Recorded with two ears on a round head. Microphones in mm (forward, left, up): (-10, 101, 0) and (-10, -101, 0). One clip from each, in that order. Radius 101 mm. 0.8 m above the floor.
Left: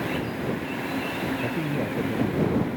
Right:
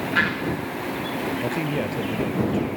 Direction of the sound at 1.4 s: 85° right.